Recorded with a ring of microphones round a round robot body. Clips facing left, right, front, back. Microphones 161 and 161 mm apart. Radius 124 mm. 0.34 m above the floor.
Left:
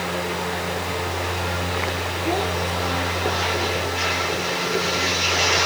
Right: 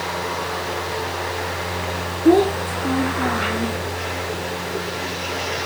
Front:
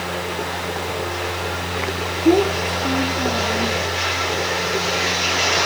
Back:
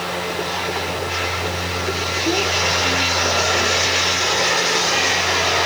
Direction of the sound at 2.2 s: 55° right.